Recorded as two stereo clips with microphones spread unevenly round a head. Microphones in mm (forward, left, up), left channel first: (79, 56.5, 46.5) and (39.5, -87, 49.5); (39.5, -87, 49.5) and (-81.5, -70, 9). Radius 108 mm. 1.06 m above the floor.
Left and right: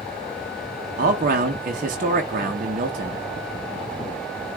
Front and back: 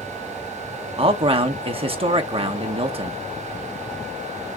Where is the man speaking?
150° right, 0.7 m.